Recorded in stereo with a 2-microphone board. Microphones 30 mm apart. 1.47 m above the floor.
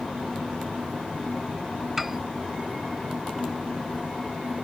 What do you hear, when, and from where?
2.0 s a piano: 5° right (ahead or behind)